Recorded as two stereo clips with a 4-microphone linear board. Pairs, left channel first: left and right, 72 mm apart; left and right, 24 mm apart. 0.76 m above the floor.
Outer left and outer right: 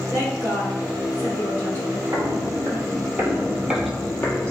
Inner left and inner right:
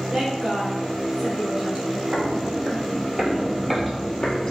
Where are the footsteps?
55° right (ahead or behind), 1.4 m; by 4.5 s 20° left (ahead or behind), 1.1 m.